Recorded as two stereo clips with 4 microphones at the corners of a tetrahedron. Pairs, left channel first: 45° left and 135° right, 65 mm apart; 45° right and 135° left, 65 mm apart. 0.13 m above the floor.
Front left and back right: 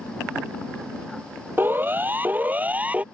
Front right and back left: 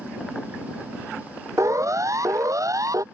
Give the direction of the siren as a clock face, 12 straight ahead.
6 o'clock.